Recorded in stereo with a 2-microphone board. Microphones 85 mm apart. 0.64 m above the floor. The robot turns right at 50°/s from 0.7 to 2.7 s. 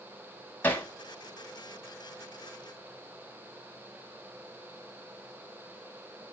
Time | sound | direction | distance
0.6 | hammering | 20° left (ahead or behind) | 1.0 m